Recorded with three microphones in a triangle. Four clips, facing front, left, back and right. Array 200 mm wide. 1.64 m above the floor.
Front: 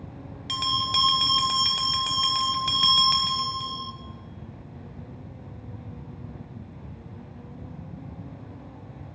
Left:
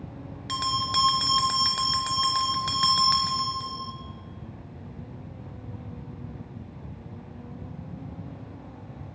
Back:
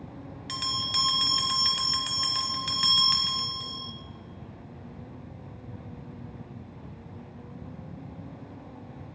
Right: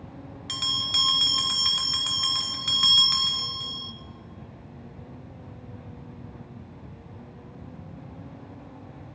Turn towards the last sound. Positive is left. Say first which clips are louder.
# left 10 dB, front 7 dB
turn(degrees=40)